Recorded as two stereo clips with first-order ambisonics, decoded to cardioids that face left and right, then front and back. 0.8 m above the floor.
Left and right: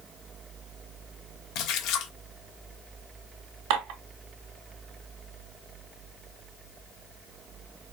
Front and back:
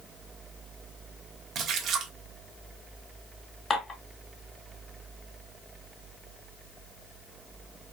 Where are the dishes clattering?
70° right, 2 m.